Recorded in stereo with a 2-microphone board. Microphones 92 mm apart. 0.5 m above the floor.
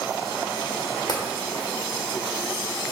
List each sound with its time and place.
1.1 s tapping: 45° left (ahead or behind), 1.1 m